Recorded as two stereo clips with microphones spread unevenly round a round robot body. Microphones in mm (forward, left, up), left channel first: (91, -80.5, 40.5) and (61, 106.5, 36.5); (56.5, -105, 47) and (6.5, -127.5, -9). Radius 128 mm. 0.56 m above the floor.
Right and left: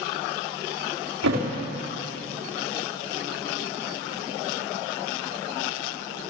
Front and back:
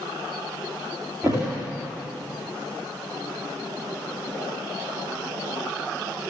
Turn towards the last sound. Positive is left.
turn(degrees=120)